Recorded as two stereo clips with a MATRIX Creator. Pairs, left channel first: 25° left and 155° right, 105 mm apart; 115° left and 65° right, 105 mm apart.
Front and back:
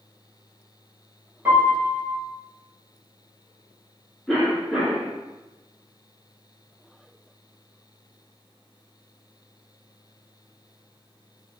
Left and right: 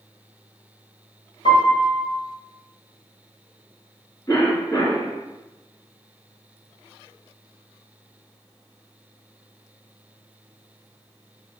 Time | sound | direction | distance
1.4 | a piano | 130° left | 1.1 m
4.3 | a cough | 105° left | 1.4 m